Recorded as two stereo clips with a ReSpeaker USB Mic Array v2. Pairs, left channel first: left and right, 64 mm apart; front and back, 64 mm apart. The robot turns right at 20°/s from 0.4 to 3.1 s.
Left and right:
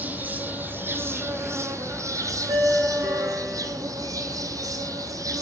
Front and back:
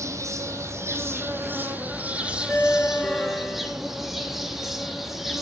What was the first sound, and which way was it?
An insect, 150° right.